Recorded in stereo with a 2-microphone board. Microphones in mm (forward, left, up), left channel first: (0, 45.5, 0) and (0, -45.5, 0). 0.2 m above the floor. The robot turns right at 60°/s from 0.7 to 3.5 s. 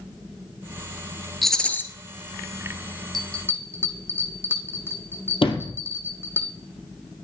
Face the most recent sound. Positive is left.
turn(degrees=80)